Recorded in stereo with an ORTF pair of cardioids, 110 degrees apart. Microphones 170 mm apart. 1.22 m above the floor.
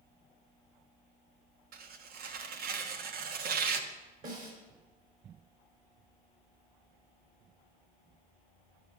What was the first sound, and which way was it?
Tearing paper, 70° right.